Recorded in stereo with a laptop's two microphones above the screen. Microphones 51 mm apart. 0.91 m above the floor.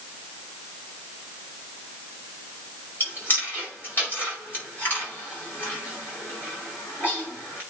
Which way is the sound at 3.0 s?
40° left (ahead or behind).